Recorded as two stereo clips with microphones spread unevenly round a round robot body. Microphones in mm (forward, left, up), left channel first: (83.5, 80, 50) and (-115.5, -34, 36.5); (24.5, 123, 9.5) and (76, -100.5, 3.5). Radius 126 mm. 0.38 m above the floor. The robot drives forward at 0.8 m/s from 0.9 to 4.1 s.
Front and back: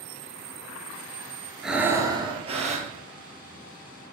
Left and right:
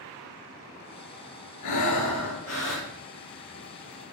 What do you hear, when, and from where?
1.6 s breathing: 120° left, 1.1 m; by 2.9 s 150° left, 1.8 m